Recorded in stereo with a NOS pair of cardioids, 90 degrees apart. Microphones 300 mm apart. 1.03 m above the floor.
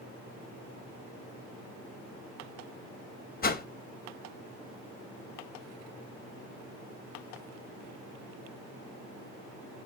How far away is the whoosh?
About 1.0 m.